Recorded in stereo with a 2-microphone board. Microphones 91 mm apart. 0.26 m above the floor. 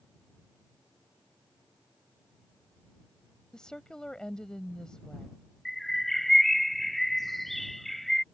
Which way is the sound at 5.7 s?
Centre (ahead or behind).